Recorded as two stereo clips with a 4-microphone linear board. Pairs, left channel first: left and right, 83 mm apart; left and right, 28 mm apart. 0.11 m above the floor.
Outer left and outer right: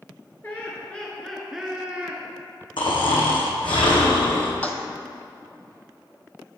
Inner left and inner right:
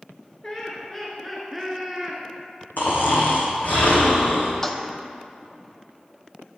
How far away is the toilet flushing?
About 0.6 m.